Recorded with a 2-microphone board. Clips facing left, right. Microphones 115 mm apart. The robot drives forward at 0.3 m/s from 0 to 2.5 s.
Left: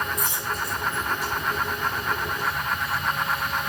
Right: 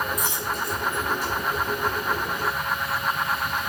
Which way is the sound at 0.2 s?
65° right (ahead or behind).